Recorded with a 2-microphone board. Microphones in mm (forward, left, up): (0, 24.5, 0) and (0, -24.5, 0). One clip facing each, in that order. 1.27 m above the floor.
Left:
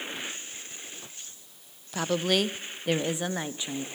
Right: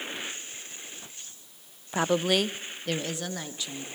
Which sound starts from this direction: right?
A woman speaking, at 1.9 s.